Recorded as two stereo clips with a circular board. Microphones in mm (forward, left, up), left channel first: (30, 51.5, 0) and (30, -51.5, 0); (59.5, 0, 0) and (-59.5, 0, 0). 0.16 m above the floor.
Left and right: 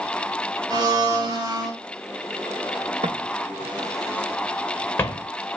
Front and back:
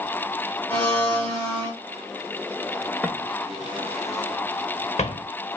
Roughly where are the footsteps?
Right.